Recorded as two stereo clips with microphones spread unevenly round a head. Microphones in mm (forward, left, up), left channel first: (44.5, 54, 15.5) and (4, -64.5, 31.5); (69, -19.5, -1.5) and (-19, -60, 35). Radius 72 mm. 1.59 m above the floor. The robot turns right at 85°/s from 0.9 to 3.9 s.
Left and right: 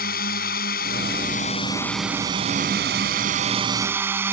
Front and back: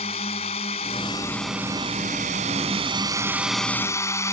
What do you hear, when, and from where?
0.0 s a drone: 70° left; by 4.3 s 35° right